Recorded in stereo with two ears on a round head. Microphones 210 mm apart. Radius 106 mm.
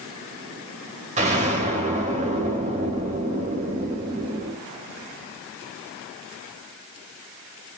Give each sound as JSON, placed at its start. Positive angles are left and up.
{"t": 1.2, "sound": "an explosion", "side_deg": -30, "distance_m": 2.5}